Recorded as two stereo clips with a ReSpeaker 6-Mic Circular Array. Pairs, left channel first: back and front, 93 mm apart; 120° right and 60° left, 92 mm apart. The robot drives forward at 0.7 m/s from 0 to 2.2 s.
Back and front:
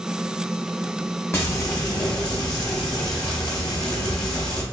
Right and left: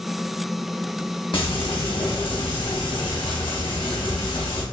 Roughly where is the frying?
Behind right.